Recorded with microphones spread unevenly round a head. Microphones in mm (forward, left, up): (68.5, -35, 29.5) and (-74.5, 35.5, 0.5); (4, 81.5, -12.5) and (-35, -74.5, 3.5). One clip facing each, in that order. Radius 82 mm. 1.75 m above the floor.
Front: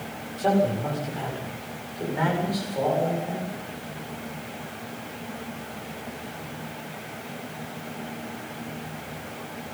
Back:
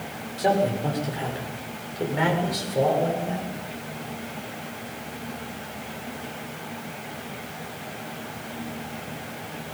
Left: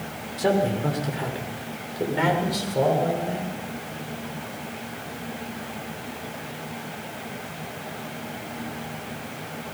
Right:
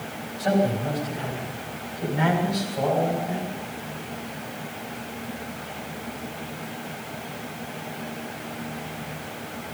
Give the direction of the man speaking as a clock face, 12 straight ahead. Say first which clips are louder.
Even, left 1 dB; 9 o'clock.